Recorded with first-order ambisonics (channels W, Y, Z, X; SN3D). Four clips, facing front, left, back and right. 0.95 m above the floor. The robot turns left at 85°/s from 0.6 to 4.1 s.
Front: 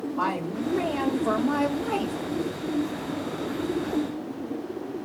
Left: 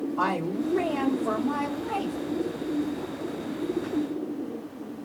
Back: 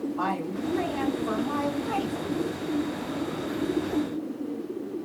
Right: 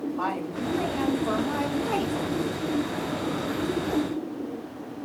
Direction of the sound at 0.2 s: 80° left.